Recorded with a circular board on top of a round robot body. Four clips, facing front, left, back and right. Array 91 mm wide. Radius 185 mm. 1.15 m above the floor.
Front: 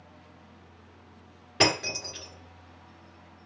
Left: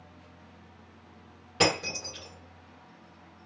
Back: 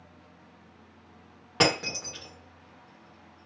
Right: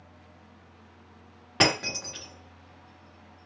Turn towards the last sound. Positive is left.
turn(degrees=-130)